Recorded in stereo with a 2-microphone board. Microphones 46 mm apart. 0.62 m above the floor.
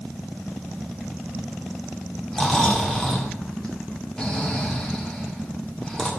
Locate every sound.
2.3 s snoring: 15° left (ahead or behind), 1.8 m